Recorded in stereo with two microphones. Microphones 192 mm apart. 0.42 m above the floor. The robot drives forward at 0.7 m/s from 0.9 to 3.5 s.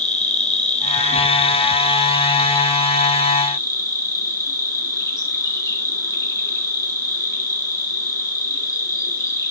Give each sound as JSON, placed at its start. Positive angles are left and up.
{"t": 0.0, "sound": "an insect", "side_deg": 40, "distance_m": 1.2}